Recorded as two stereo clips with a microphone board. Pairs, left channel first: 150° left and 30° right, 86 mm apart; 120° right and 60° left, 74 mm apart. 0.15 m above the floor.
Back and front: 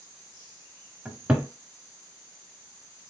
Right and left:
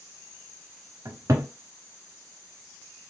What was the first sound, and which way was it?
A cupboard door, 40° left.